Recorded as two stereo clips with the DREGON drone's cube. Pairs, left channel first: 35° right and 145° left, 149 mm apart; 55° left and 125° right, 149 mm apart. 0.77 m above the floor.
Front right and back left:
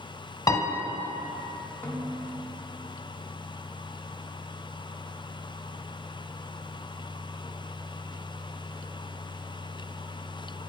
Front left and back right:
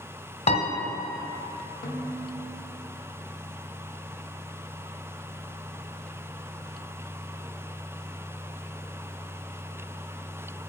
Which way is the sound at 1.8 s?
40° left.